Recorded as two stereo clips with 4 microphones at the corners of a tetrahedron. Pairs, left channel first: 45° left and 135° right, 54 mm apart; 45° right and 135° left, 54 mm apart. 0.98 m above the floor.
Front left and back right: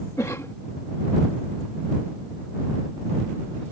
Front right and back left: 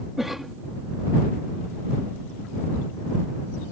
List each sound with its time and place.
0.2 s a cough: 50° left